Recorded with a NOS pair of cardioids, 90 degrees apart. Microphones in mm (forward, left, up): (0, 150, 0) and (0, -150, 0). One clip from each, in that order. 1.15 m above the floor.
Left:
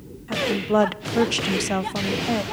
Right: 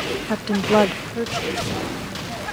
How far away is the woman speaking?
About 1.0 m.